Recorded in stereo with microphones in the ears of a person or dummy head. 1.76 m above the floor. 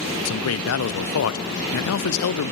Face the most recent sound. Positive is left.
turn(degrees=80)